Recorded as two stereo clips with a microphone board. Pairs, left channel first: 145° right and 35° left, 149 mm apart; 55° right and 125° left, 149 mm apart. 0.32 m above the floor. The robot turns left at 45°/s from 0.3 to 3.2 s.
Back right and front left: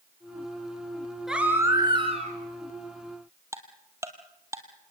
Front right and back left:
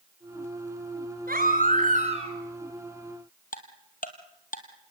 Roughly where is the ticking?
Ahead right.